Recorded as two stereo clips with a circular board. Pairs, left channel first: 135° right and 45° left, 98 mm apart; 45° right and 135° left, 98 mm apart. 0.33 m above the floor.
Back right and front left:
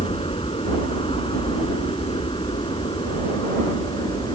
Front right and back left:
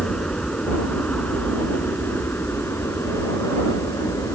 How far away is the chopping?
I don't hear chopping.